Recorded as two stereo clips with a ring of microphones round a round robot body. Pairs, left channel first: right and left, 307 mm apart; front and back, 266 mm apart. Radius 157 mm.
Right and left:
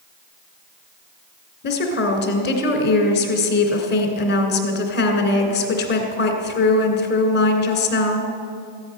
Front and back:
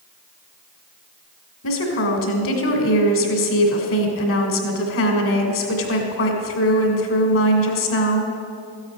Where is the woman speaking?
35° right, 2 m.